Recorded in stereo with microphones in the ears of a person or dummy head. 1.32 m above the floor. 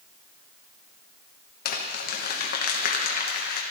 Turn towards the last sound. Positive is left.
turn(degrees=50)  # may be behind; listen again after turning